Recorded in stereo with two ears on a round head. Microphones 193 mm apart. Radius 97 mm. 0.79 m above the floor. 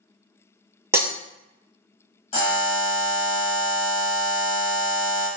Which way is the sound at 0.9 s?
10° right (ahead or behind).